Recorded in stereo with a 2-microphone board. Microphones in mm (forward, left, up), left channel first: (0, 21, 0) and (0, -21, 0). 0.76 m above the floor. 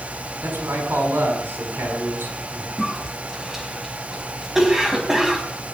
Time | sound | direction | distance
0.4 | a man speaking | 75° right (ahead or behind) | 5 m
2.8 | a cough | 10° right (ahead or behind) | 4.5 m